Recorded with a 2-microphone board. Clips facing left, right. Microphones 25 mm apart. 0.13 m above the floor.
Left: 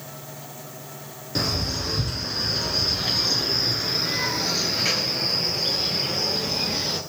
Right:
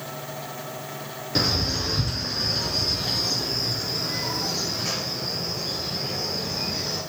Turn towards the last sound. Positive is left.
turn(degrees=70)  # may be behind; listen again after turning